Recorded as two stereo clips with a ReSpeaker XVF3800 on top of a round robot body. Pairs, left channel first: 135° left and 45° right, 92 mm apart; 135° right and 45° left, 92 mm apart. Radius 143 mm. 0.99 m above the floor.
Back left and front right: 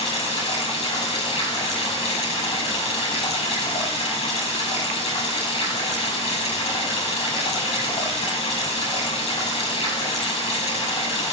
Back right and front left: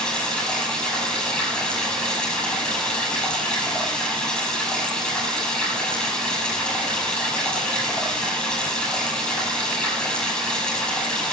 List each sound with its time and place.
0.0 s running water: 145° left, 5.5 m